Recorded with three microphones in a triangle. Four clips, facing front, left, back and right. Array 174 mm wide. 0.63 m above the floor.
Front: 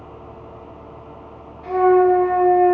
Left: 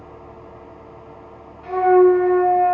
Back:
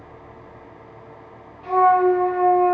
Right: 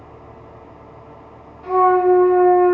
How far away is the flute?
About 2 m.